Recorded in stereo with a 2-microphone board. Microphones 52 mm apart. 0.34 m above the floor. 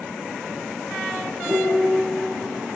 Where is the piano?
40° right (ahead or behind), 4.5 m.